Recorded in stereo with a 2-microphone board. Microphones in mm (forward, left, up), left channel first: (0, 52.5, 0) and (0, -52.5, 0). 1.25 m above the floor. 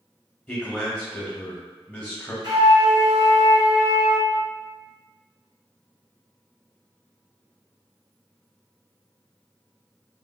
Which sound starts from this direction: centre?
A man speaking, at 0.5 s.